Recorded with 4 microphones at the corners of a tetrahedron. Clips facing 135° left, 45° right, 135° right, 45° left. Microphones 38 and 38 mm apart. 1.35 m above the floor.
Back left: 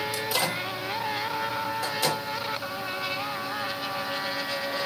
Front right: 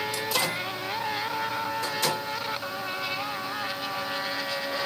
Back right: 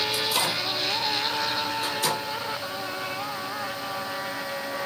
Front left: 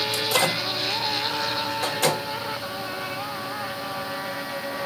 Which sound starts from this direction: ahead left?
A microwave, at 0.1 s.